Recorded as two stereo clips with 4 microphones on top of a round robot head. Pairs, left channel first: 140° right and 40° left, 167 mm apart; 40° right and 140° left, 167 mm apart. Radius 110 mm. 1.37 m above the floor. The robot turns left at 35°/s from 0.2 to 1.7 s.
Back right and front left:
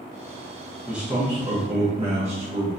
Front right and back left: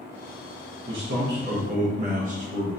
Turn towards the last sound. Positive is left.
turn(degrees=95)